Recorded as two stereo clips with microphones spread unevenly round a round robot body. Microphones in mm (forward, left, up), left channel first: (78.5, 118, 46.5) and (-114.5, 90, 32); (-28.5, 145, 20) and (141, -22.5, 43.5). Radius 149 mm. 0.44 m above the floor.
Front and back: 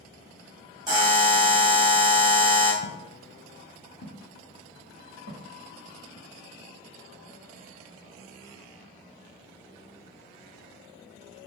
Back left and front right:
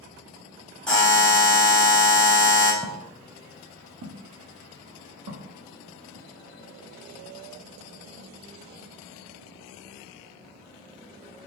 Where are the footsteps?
40° left, 0.9 m; by 6.3 s 50° right, 2.0 m.